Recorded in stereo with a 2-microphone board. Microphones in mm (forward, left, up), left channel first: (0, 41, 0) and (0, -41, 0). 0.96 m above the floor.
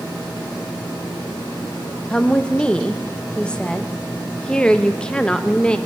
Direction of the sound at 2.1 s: 10° left (ahead or behind).